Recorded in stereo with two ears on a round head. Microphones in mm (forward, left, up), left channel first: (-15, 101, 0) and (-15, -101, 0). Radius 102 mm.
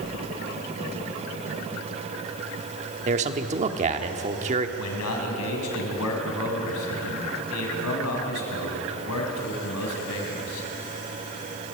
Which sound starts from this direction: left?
A man speaking, at 4.8 s.